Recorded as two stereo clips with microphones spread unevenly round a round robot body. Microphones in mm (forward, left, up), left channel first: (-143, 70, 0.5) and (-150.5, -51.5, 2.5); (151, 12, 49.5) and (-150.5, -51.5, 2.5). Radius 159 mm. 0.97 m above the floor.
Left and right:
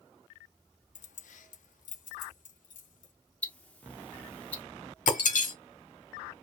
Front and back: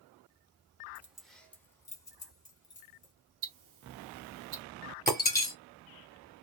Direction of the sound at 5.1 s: 90° left.